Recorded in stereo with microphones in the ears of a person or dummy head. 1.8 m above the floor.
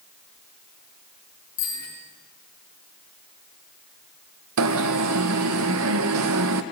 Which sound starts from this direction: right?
An alarm, at 4.6 s.